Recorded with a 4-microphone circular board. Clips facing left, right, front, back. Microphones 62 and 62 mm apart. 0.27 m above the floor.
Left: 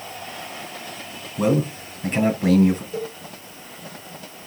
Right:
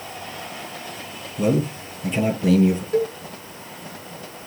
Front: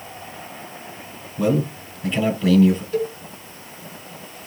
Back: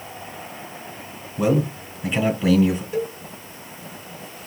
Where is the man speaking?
115° left, 2.0 m.